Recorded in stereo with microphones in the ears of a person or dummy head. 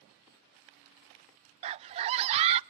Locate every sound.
1.6 s a scream: 35° right (ahead or behind), 0.5 m